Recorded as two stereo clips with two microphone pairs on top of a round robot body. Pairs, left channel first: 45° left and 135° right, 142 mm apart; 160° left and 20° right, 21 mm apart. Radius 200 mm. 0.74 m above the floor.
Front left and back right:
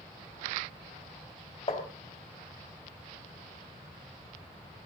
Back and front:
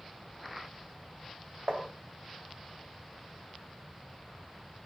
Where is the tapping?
5° right, 3 m.